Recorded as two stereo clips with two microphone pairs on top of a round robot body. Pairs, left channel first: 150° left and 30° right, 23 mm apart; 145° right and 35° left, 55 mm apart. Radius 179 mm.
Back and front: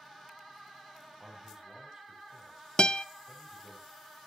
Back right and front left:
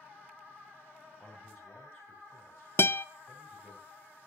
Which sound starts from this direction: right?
A man speaking, at 1.2 s.